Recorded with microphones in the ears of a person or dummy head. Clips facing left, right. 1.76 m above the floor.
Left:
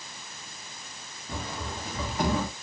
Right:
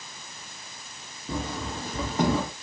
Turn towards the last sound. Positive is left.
turn(degrees=-30)  # may be behind; listen again after turning